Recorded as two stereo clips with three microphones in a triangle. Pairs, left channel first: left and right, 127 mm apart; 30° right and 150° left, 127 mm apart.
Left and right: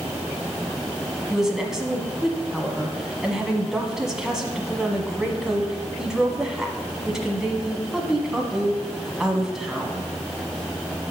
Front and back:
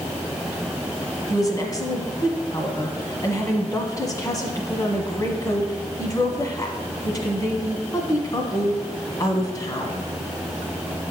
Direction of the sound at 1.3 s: 10° right.